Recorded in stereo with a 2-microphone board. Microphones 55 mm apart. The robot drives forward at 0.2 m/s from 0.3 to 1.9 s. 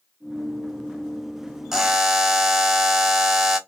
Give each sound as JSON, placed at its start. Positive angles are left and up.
{"t": 1.7, "sound": "a buzzer", "side_deg": -10, "distance_m": 0.8}